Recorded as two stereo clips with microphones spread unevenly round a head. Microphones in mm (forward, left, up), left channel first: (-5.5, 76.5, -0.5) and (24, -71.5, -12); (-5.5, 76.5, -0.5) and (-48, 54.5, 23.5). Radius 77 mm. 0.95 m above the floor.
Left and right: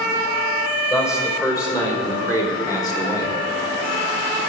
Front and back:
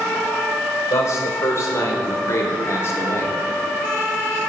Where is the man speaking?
30° left, 4.5 m; by 3.4 s 40° left, 2.5 m.